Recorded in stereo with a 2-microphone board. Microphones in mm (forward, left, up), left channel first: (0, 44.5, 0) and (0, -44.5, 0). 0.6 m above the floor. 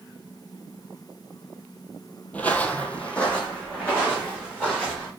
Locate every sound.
2.3 s footsteps: 15° left (ahead or behind), 0.6 m; by 5.1 s 10° left (ahead or behind), 3 m